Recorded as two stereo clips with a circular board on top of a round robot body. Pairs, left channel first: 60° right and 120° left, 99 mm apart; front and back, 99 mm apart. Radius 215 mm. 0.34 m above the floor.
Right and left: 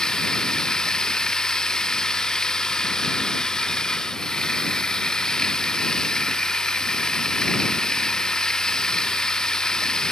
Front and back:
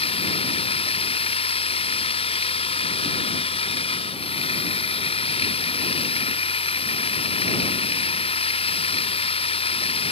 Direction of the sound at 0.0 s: 25° left.